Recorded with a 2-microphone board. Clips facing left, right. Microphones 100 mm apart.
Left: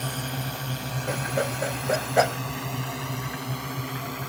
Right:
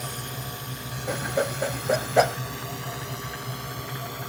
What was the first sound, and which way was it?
A drone, 55° left (ahead or behind).